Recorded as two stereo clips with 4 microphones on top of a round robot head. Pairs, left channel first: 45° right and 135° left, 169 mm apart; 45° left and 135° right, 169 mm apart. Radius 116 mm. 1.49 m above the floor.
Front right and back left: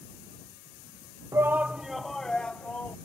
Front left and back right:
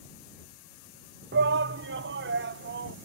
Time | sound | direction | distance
1.3 | a shout | 150° right | ?